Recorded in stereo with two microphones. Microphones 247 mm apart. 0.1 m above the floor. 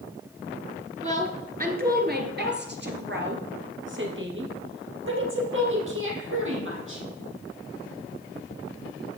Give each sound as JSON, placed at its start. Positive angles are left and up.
{"t": 1.0, "sound": "a woman speaking", "side_deg": -30, "distance_m": 1.6}